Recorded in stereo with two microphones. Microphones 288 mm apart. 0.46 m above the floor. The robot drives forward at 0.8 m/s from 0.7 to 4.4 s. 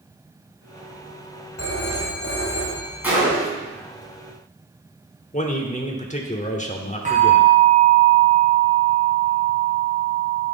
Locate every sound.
1.6 s a phone ringing: 55° left (ahead or behind), 1.7 m; by 3.2 s 35° left (ahead or behind), 2.5 m
3.0 s a gunshot: 5° right (ahead or behind), 3.5 m
5.3 s a man speaking: 25° left (ahead or behind), 1.0 m
7.0 s a bell: 25° right (ahead or behind), 3 m